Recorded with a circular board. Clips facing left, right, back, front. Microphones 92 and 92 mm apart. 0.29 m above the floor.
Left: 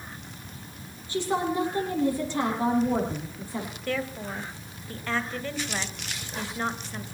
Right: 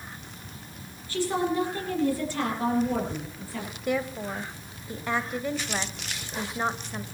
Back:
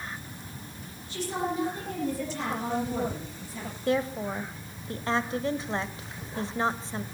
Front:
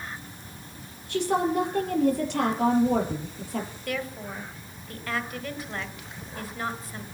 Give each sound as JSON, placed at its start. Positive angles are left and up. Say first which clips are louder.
{"t": 1.1, "sound": "a woman speaking", "louder": "even, front 7 dB", "azimuth_deg": 20, "distance_m": 7.5}
{"t": 3.9, "sound": "a woman speaking", "louder": "right 4 dB, back 5 dB", "azimuth_deg": -145, "distance_m": 1.4}